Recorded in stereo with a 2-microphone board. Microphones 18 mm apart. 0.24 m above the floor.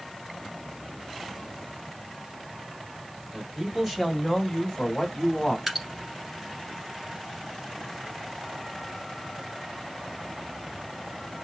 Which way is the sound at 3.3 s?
35° right (ahead or behind).